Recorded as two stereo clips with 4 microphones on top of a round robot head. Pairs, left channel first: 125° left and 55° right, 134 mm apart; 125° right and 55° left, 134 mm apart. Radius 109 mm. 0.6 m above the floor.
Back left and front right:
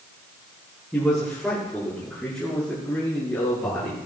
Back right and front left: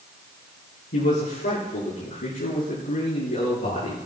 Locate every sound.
0.9 s a man speaking: 150° right, 9.5 m; by 4.0 s 155° right, 7.5 m